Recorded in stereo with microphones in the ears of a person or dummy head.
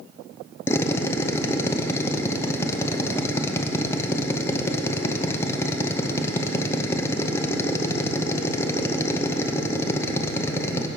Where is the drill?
15° left (ahead or behind), 0.6 m.